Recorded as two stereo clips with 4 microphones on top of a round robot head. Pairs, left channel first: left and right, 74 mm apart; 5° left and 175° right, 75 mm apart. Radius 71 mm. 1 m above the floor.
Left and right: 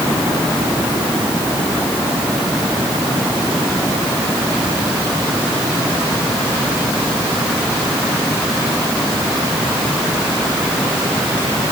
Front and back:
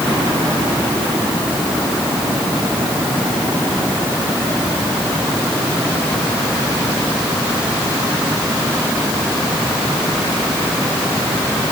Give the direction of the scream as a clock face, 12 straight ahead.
I don't hear a scream.